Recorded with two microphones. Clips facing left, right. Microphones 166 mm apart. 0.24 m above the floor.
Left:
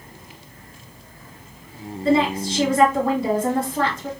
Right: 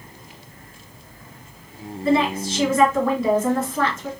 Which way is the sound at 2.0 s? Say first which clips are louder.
Left 1 dB; 30° left (ahead or behind).